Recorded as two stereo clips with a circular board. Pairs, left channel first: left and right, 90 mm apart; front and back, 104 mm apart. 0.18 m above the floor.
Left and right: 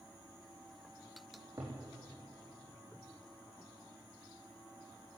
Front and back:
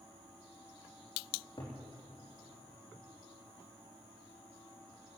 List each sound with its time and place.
1.3 s a cupboard door: 40° right, 4.5 m